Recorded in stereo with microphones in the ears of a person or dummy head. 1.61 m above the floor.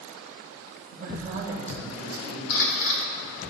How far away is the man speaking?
About 2.5 m.